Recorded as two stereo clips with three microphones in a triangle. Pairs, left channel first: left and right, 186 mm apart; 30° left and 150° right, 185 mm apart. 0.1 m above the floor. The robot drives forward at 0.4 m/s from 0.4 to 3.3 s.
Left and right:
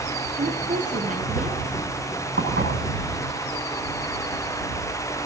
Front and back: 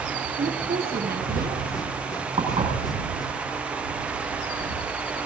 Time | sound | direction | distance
0.4 | a woman speaking | 120° right | 2.5 m
2.4 | dishes clattering | 90° right | 4.5 m